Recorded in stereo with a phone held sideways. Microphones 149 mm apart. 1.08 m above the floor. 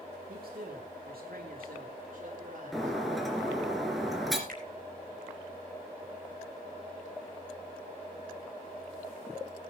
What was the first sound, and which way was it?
A man speaking, 75° right (ahead or behind).